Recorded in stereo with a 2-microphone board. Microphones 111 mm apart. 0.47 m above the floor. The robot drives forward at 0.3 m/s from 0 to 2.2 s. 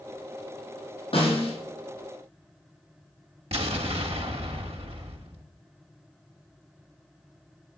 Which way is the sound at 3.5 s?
65° right (ahead or behind).